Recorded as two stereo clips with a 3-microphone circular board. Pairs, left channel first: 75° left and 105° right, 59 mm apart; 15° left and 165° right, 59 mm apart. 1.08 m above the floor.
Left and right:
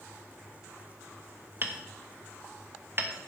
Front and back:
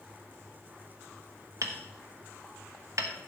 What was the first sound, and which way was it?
Hammering, 150° right.